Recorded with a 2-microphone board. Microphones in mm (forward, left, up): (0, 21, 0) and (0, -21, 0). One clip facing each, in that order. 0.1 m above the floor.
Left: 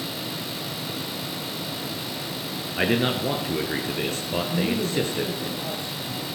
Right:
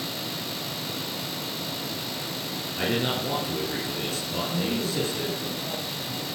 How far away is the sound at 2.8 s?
About 1.8 m.